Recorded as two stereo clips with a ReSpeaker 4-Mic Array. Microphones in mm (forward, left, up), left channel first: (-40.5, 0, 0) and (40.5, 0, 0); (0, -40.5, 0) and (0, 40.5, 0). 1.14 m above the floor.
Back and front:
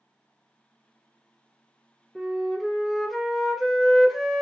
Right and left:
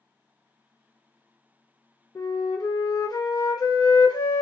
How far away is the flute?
About 0.5 m.